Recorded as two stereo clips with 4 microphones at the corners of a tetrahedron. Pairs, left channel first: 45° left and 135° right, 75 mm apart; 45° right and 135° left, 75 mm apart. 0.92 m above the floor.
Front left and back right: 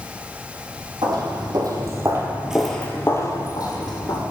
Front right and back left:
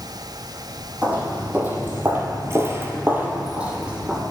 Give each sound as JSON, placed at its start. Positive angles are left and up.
{"t": 1.0, "sound": "footsteps", "azimuth_deg": -155, "distance_m": 2.5}